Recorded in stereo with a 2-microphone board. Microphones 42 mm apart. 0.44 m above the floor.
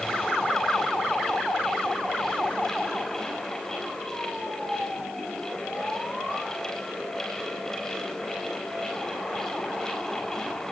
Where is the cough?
No cough in this recording.